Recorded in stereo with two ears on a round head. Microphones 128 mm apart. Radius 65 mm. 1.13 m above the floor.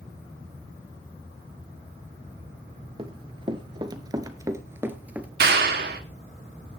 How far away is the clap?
About 1.7 m.